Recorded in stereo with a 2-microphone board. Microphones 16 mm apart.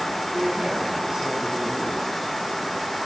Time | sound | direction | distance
0.3 | a man speaking | 50° right (ahead or behind) | 5.5 m